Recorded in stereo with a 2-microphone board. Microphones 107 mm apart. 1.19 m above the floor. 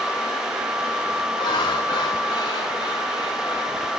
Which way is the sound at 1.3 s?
50° left (ahead or behind).